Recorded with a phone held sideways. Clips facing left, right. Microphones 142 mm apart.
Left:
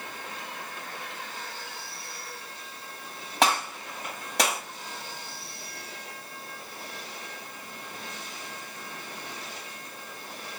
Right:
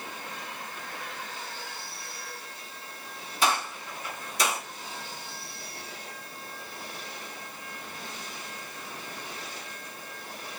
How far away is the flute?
No flute in this recording.